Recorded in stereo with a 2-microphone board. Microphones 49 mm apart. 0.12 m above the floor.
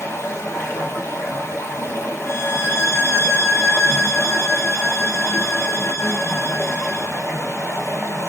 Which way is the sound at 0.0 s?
60° left (ahead or behind).